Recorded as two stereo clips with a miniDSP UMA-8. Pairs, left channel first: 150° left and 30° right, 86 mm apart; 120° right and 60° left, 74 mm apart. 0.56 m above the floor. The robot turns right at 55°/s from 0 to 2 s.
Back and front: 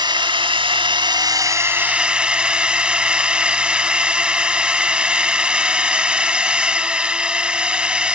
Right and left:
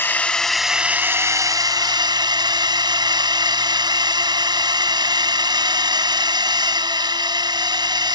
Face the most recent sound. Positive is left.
turn(degrees=50)